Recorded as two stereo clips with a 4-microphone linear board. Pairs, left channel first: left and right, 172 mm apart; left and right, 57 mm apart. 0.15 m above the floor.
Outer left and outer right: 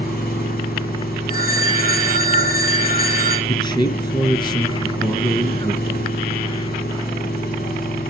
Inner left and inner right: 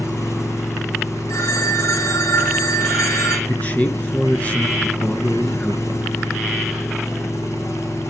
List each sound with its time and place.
0.0 s an engine running: 70° left (ahead or behind), 7.5 m
1.3 s a phone ringing: 65° left (ahead or behind), 5.5 m
3.5 s a man speaking: 25° left (ahead or behind), 2 m